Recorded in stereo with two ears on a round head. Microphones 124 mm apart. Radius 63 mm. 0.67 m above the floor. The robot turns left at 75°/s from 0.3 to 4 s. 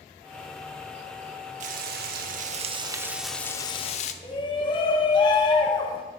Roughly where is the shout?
Left.